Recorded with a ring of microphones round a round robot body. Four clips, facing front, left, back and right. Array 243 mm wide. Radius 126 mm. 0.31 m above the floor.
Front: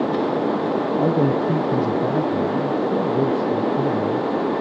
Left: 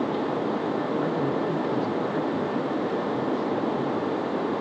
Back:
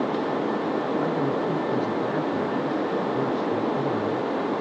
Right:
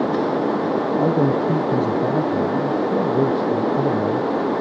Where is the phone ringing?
No phone ringing in this recording.